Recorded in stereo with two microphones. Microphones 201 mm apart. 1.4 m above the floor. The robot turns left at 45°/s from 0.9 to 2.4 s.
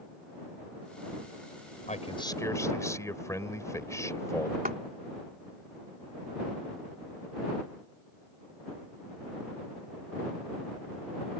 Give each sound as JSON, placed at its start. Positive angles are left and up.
{"t": 1.9, "sound": "a man speaking", "side_deg": 40}
{"t": 4.7, "sound": "a clap", "side_deg": -45}